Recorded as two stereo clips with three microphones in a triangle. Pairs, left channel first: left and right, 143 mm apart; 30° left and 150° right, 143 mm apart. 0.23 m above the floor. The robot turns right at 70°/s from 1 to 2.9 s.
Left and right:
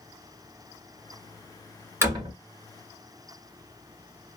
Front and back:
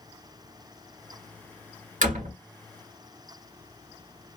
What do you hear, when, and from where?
2.0 s a door slam: 160° right, 1.9 m; by 2.3 s 140° right, 1.9 m